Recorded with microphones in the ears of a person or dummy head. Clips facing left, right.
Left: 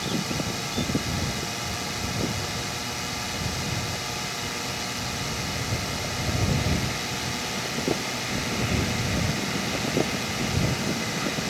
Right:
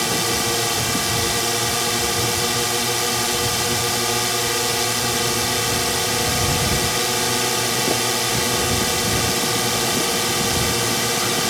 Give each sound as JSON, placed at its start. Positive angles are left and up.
{"t": 0.0, "sound": "a drone", "side_deg": -75}